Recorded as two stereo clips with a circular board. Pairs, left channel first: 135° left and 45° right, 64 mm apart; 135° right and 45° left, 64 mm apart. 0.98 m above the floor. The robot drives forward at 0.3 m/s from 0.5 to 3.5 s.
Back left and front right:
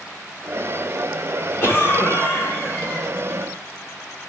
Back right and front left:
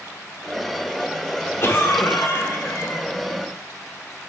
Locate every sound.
1.6 s a cough: 175° left, 1.6 m